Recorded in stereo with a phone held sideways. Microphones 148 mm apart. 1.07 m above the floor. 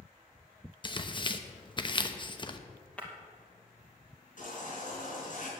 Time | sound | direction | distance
0.8 | tearing paper | 35° left (ahead or behind) | 0.8 m
3.0 | breaking glass | 10° left (ahead or behind) | 2.5 m
4.4 | a baby crying | 60° left (ahead or behind) | 4.5 m